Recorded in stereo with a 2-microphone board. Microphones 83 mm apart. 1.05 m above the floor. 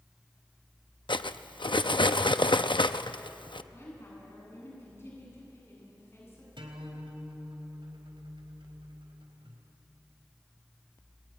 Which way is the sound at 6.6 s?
85° right.